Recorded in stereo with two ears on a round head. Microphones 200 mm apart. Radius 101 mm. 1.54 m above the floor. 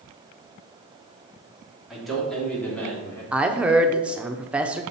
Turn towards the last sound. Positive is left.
turn(degrees=-5)  # may be behind; listen again after turning